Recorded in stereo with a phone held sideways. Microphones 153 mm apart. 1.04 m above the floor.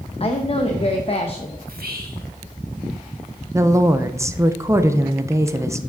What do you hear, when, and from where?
0.2 s a woman speaking: 40° left (ahead or behind), 0.7 m
1.7 s whispering: 80° right, 1.9 m
3.5 s a woman speaking: 20° right (ahead or behind), 0.6 m